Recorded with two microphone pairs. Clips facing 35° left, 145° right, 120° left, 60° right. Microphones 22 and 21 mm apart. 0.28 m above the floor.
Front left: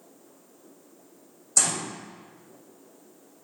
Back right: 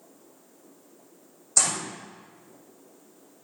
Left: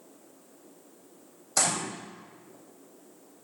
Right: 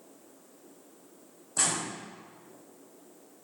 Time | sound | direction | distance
1.6 | a gunshot | 135° left | 3 m